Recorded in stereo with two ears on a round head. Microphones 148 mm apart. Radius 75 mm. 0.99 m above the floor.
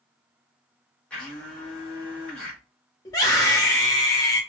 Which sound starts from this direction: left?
A scream, at 3.0 s.